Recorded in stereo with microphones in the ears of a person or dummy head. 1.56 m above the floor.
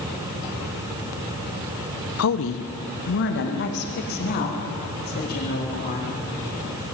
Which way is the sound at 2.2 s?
80° left.